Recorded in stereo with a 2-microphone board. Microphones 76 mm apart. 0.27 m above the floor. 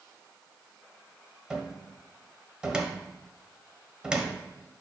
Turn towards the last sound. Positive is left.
turn(degrees=-10)  # may be behind; listen again after turning